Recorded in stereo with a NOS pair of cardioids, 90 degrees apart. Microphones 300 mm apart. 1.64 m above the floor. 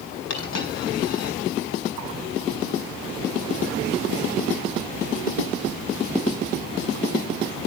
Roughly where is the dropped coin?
Ahead left.